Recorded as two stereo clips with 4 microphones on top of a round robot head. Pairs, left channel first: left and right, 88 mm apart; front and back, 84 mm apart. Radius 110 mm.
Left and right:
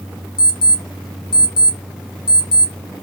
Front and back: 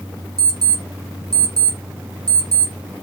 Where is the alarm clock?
135° left, 1.3 m.